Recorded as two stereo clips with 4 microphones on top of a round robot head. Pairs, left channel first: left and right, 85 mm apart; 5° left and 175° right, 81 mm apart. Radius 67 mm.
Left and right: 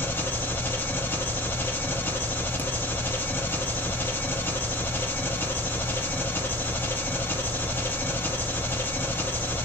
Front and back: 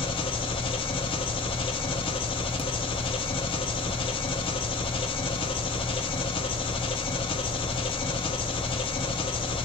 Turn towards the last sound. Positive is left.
turn(degrees=20)